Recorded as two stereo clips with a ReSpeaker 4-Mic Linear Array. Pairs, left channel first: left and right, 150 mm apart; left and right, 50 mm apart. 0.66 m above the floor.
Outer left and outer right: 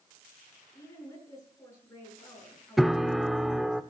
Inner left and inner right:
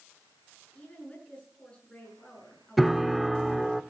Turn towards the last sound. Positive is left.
turn(degrees=0)  # may be behind; listen again after turning